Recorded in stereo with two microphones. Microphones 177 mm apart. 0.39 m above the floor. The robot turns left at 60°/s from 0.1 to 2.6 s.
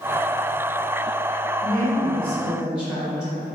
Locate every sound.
1.6 s a woman speaking: 50° left, 1.6 m; by 3.4 s 10° right, 1.6 m